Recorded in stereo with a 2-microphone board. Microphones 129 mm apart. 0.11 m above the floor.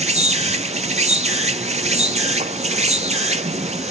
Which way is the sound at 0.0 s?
70° right (ahead or behind).